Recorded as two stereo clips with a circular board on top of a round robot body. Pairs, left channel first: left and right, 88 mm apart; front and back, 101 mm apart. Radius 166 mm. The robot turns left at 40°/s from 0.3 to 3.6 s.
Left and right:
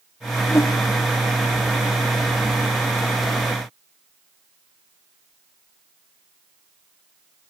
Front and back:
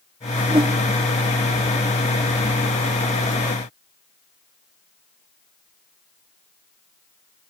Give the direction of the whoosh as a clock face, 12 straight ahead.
7 o'clock.